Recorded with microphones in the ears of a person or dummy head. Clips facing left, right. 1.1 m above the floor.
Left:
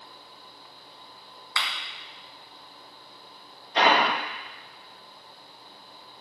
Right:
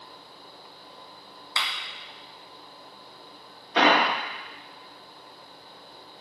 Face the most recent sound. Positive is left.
turn(degrees=-70)  # may be behind; listen again after turning